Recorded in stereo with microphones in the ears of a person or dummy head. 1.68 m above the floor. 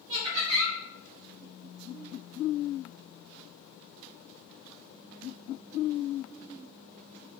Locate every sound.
0.1 s laughter: 45° right (ahead or behind), 1.4 m